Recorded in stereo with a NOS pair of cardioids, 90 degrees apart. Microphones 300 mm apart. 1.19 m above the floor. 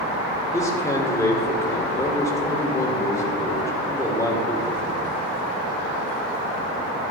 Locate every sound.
0.5 s a man speaking: 10° left, 3.5 m